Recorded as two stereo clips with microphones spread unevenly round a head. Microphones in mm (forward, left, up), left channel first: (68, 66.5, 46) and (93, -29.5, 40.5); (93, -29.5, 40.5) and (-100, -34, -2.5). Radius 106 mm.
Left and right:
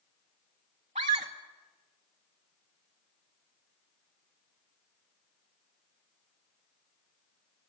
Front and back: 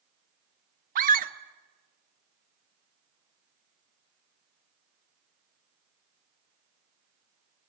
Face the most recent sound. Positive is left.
turn(degrees=-130)